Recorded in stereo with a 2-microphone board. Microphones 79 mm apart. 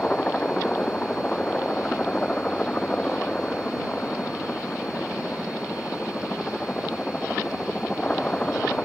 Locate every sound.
0.0 s a helicopter: 15° left (ahead or behind)